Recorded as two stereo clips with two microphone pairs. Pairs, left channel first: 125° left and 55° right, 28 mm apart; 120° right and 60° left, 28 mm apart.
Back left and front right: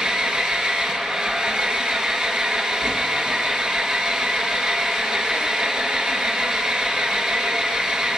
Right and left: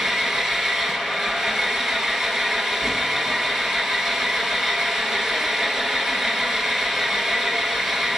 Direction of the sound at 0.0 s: 5° right.